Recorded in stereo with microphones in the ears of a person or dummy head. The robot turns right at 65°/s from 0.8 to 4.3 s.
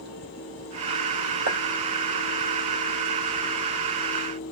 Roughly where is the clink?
Right.